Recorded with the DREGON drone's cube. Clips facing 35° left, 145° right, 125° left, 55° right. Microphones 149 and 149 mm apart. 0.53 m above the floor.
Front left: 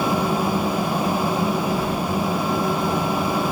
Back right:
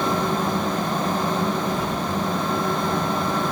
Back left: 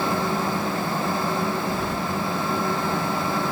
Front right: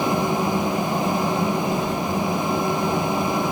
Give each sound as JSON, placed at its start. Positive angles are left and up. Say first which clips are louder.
{"t": 1.7, "sound": "keys jangling", "louder": "front left 2 dB, front right 3 dB", "azimuth_deg": 140, "distance_m": 5.0}